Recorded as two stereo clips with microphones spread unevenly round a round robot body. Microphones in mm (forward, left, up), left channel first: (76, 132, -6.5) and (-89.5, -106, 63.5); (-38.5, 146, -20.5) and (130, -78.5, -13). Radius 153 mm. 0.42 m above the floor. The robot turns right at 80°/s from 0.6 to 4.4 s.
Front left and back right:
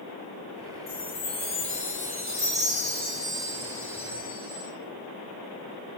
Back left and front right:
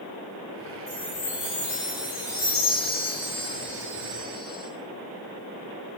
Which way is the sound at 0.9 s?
55° left.